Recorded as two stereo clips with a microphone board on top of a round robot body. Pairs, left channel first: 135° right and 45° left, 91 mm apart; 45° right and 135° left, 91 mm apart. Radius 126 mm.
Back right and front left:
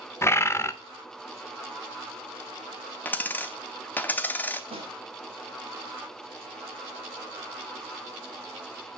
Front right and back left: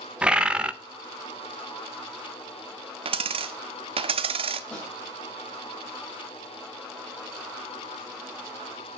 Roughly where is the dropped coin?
Behind left.